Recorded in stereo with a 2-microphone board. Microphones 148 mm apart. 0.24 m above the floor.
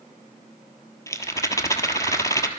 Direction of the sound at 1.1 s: 20° left (ahead or behind).